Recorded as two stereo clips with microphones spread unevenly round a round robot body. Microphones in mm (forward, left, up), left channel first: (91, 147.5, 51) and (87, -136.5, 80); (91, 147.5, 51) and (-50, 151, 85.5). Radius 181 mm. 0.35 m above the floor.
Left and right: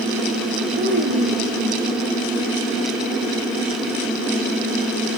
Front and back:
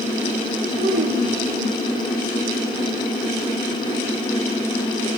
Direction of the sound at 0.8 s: 160° right.